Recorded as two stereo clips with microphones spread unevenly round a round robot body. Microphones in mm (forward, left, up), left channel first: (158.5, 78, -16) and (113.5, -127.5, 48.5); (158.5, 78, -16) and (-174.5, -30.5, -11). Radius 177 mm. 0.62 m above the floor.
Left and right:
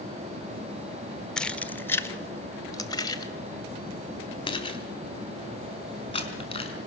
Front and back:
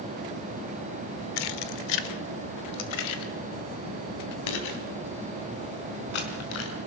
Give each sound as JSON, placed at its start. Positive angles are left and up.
{"t": 1.4, "sound": "keys jangling", "azimuth_deg": -5, "distance_m": 1.3}